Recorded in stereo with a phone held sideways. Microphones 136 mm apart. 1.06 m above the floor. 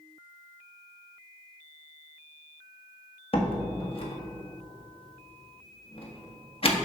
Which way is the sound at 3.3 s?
45° left (ahead or behind).